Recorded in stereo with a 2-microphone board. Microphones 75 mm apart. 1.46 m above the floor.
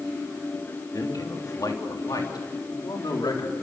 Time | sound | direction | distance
0.9 | a man speaking | 50° left (ahead or behind) | 3.5 m